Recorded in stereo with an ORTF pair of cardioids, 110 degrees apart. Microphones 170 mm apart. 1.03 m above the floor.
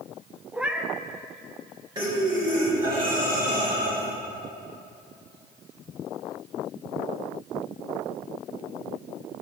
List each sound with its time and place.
0.5 s a cat meowing: 5° right, 0.7 m
1.9 s breathing: 25° right, 2.5 m